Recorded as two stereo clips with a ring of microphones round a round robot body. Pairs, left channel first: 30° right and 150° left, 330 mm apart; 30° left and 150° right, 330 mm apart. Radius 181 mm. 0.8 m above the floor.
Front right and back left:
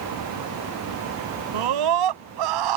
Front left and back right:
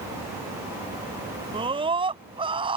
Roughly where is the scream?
Behind left.